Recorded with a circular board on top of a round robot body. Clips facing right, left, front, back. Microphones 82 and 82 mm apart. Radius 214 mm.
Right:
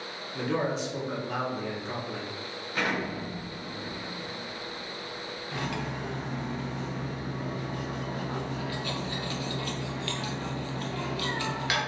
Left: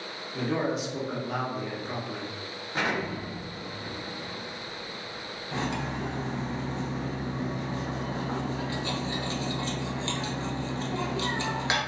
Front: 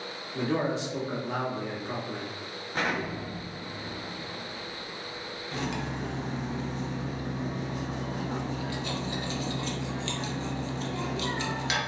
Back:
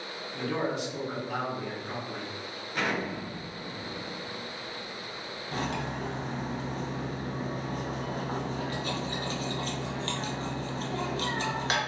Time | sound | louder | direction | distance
0.3 | a man speaking | left 1 dB, front 2 dB | 10° left | 1.3 m
2.7 | an explosion | left 1 dB, front 1 dB | 40° left | 1.4 m
5.5 | cutlery clinking | left 3 dB, back 1 dB | 150° left | 0.9 m